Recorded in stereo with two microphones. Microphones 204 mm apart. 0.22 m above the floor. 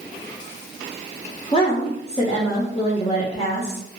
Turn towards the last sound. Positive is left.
turn(degrees=30)  # may be behind; listen again after turning